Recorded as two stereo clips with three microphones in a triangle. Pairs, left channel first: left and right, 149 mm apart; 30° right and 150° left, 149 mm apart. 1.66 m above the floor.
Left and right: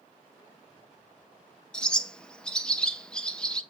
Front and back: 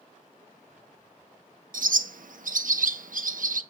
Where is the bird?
175° left, 0.5 m.